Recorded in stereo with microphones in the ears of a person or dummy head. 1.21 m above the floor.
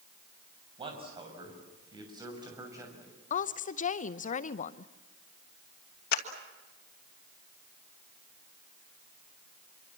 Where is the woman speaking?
45° left (ahead or behind), 0.7 m.